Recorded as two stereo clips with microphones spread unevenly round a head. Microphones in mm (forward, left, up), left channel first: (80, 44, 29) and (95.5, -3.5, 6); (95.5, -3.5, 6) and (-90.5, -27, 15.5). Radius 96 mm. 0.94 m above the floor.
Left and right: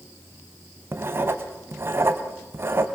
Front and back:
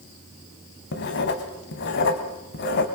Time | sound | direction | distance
0.9 | writing | 25° right | 2.0 m